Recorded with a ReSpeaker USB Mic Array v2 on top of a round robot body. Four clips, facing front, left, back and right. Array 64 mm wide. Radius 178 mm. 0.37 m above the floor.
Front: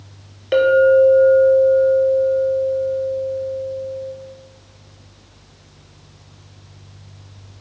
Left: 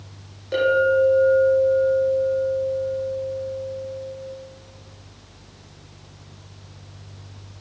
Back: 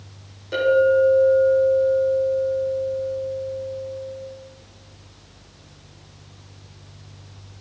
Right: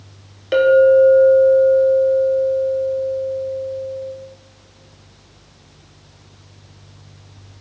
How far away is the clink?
About 2.0 m.